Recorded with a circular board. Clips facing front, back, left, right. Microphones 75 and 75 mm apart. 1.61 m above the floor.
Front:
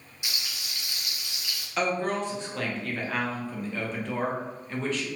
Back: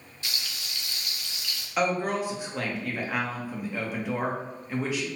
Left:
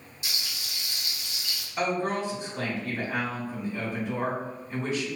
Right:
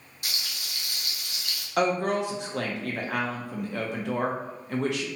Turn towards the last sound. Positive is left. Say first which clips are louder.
# back 1 dB, right 3 dB
turn(degrees=-100)